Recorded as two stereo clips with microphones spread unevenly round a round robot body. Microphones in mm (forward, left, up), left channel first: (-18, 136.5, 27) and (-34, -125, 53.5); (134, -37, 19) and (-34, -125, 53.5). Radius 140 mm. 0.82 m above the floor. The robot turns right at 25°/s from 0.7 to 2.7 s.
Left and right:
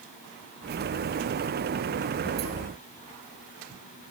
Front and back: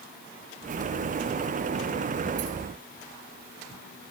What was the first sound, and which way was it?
Only background noise.